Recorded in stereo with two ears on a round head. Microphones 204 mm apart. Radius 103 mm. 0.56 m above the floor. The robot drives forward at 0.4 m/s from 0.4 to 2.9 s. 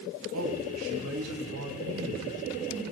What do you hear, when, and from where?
0.3 s a man speaking: 65° right (ahead or behind), 4 m; by 2.5 s 70° right (ahead or behind), 3.5 m